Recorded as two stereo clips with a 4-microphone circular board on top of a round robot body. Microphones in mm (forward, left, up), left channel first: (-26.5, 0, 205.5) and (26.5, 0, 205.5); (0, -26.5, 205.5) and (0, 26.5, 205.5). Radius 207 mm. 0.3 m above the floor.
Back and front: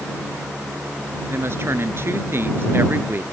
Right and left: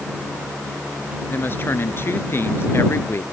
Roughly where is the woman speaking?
Ahead right.